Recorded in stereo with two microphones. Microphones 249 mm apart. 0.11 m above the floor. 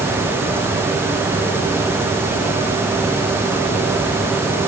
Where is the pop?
I don't hear a pop.